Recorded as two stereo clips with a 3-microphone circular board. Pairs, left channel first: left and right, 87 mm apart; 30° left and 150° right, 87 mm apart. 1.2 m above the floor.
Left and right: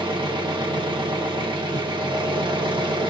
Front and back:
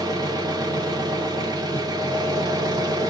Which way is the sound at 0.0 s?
110° right.